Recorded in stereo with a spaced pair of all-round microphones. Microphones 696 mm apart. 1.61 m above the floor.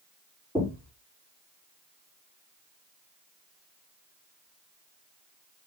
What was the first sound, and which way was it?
Knocking, 5° left (ahead or behind).